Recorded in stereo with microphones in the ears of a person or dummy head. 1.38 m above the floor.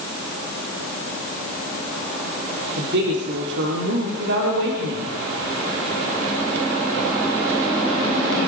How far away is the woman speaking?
About 4 m.